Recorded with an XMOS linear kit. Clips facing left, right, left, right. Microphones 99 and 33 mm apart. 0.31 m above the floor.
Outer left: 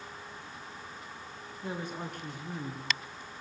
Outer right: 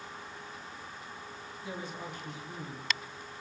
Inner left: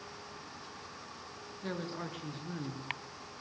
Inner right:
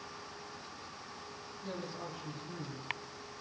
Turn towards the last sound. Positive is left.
turn(degrees=60)  # may be behind; listen again after turning